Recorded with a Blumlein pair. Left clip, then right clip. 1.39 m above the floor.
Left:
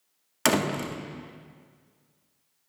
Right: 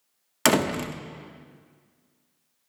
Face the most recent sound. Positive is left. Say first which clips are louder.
# right 3 dB
turn(degrees=-10)